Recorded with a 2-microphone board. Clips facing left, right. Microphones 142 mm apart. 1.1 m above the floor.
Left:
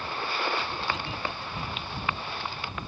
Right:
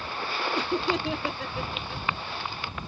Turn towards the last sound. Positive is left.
turn(degrees=-85)